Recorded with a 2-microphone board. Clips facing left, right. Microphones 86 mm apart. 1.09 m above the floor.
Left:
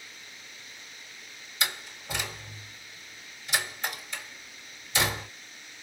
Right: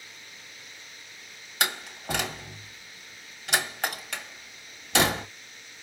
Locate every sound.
1.6 s a door slam: 70° right (ahead or behind), 1.6 m